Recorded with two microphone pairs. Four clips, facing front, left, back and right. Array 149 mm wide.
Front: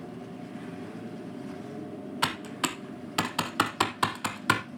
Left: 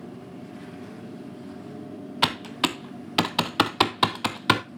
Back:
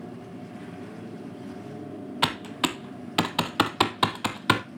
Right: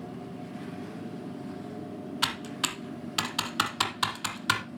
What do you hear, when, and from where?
2.2 s typing on a keyboard: 115° left, 0.7 m